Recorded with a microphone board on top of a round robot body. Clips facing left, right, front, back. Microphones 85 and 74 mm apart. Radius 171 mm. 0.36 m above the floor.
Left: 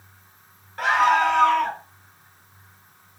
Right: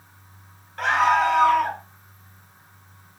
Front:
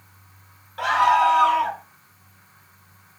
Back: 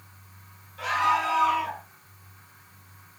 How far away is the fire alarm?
I don't hear a fire alarm.